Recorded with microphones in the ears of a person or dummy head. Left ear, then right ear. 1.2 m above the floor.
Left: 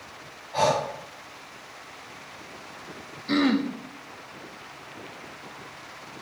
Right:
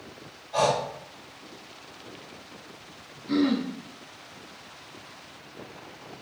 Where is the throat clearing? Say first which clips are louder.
Left 2 dB; 30° left (ahead or behind), 1.0 m.